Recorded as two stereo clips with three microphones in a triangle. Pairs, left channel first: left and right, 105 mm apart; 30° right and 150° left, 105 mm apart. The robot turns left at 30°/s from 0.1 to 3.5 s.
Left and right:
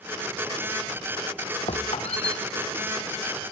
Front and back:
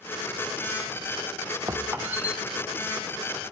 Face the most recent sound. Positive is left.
turn(degrees=35)